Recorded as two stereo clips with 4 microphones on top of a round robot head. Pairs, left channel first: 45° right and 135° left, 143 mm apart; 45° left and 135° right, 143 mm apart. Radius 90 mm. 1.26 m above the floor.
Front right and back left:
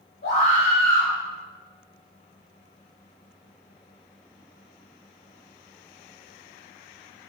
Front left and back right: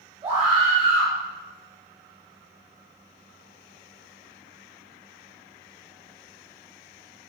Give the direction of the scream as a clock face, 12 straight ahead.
3 o'clock.